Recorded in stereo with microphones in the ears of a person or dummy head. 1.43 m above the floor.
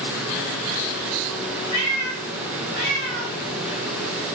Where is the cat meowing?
20° left (ahead or behind), 1.1 m; by 3.4 s 55° left (ahead or behind), 1.4 m.